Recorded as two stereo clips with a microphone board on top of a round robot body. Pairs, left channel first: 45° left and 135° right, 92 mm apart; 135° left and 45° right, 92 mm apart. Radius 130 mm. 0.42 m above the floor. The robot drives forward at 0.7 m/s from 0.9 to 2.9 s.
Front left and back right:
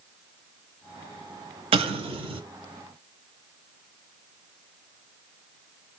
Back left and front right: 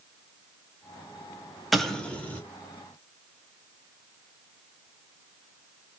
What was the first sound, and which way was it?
An explosion, 135° right.